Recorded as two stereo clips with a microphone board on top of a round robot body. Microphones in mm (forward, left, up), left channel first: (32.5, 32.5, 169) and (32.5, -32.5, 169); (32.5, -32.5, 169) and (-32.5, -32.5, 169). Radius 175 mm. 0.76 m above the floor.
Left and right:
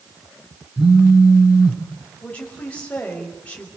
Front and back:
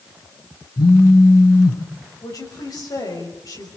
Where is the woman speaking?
20° left, 6 m.